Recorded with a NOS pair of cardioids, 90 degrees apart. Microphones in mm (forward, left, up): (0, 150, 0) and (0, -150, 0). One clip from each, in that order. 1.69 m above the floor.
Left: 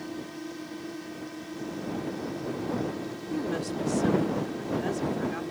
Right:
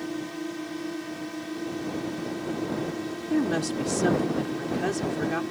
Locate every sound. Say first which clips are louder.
0.0 s a drone: right 5 dB; 40° right
3.3 s a woman speaking: right 5 dB; 55° right